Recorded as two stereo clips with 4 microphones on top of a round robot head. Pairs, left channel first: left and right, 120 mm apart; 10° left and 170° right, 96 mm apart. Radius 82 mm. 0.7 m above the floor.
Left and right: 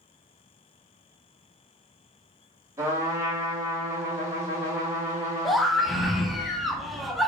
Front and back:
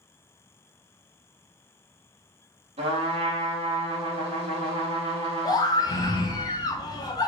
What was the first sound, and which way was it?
A trumpet, 160° right.